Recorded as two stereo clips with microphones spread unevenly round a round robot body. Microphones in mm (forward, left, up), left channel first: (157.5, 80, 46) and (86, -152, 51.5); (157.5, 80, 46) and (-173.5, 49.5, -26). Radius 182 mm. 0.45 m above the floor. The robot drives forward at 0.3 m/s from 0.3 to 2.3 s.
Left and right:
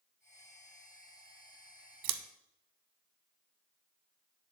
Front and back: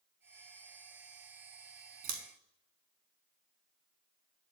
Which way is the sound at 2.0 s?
100° right.